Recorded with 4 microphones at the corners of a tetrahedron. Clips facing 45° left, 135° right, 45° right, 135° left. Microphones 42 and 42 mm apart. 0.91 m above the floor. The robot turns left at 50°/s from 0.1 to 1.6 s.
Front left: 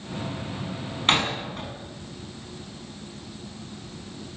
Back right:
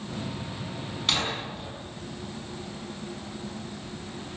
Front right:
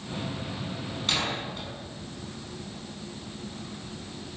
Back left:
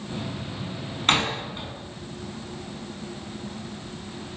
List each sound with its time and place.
1.1 s a door slam: 95° left, 6 m; by 1.8 s 70° left, 6 m